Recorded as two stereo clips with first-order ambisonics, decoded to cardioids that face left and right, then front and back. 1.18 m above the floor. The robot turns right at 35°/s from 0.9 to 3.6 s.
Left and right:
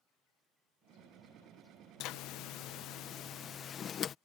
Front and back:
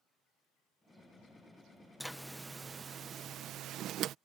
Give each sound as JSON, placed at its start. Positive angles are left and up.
{"t": 2.0, "sound": "a zipper", "azimuth_deg": 85}